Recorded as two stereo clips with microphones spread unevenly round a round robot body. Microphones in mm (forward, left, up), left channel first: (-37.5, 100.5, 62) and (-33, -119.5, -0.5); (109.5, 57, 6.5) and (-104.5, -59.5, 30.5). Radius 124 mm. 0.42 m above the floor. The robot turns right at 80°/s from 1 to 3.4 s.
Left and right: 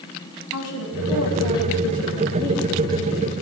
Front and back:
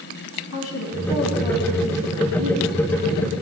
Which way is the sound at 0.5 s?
55° left.